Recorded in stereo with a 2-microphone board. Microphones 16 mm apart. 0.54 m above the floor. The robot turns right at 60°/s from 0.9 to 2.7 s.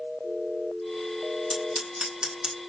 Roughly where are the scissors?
Right.